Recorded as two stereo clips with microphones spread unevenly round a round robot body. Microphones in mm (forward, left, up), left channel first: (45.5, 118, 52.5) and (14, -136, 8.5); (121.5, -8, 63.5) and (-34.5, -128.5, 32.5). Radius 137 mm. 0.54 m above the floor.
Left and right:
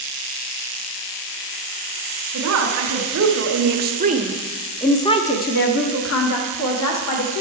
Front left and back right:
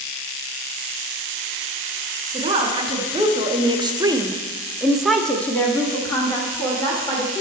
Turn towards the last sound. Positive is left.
turn(degrees=110)